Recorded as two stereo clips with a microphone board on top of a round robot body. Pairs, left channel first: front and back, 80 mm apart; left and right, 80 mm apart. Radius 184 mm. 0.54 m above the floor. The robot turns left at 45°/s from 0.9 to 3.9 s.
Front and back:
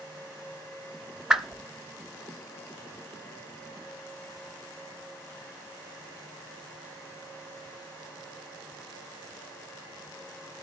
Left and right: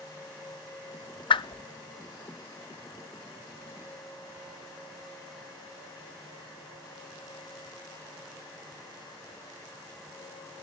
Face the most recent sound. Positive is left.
turn(degrees=-20)